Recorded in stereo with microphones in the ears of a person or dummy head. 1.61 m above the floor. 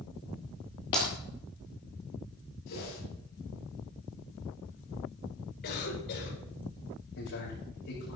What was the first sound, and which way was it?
Breaking glass, 20° left (ahead or behind).